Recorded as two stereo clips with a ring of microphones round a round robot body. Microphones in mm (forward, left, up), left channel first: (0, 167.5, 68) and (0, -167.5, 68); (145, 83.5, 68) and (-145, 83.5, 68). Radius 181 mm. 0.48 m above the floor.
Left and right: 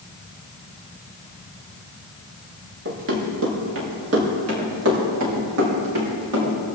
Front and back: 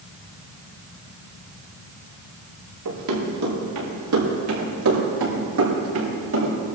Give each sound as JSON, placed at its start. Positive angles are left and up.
{"t": 2.9, "sound": "running footsteps", "azimuth_deg": -145, "distance_m": 5.0}